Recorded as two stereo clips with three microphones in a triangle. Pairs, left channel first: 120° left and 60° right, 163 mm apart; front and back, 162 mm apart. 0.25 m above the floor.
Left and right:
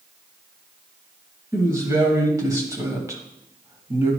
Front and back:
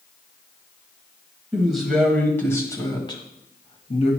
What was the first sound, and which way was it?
A woman speaking, 105° right.